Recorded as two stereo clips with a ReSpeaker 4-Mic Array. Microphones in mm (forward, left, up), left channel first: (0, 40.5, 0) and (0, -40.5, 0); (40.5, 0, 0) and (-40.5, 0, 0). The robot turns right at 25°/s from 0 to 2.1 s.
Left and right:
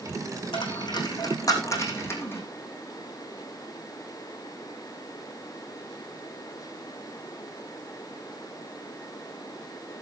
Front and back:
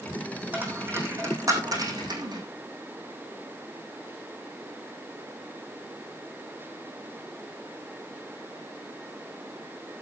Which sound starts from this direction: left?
A dropped coin, at 0.5 s.